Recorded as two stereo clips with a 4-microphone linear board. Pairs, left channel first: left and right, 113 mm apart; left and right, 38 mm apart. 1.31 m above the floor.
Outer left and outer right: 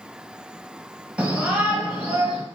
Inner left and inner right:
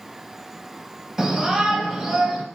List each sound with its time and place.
1.2 s a shout: 10° right (ahead or behind), 1.1 m